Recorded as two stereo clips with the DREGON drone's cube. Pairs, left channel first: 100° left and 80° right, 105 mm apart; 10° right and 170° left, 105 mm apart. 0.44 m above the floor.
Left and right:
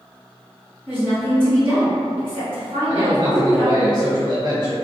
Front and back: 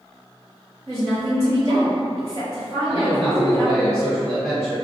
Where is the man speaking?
95° right, 1.6 m.